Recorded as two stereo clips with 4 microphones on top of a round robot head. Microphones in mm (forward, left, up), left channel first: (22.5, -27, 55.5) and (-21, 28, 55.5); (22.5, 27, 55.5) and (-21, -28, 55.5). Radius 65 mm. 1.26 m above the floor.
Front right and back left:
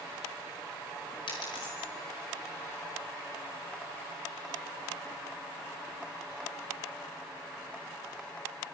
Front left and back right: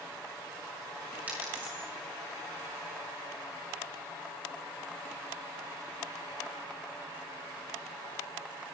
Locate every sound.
1.3 s a dropped coin: 60° right, 5.5 m